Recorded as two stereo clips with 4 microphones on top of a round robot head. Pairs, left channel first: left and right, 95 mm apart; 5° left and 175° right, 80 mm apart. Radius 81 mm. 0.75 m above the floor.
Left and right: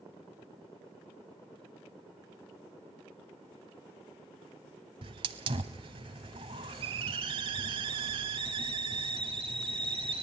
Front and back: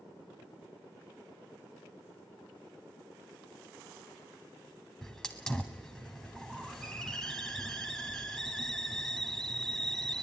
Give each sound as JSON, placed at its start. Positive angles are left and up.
{"t": 5.0, "sound": "a hiss", "azimuth_deg": -80, "distance_m": 0.7}